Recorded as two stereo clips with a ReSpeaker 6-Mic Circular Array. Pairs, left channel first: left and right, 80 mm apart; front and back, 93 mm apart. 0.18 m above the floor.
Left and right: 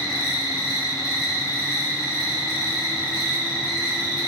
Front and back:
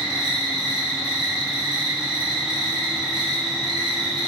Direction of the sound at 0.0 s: 145° left.